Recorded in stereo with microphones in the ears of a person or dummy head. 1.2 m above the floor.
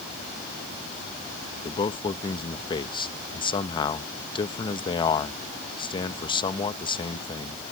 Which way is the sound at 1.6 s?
25° left (ahead or behind).